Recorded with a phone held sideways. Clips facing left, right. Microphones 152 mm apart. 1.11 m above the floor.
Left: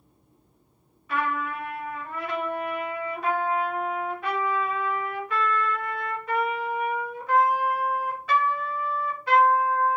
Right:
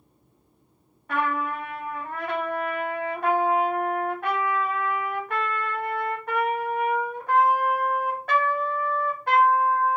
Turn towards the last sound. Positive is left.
turn(degrees=-55)  # may be behind; listen again after turning